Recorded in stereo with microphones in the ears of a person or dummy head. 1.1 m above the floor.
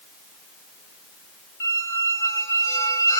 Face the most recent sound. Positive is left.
turn(degrees=15)  # may be behind; listen again after turning